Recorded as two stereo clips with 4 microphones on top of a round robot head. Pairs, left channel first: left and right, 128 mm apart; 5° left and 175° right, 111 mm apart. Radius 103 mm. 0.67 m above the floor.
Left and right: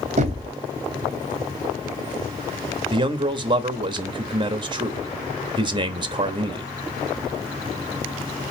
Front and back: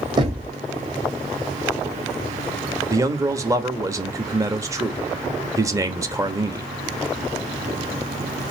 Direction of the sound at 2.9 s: 125° right.